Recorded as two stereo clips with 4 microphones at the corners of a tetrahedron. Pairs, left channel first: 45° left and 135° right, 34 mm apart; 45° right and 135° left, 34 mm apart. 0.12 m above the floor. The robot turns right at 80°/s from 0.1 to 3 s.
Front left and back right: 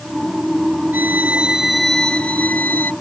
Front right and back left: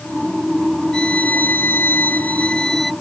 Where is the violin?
115° right; by 2.9 s 45° left.